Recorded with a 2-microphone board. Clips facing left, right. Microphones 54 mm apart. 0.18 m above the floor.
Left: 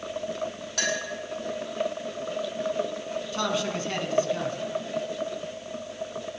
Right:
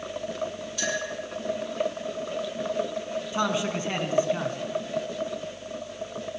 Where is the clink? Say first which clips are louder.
Left 1 dB; 70° left (ahead or behind), 4 m.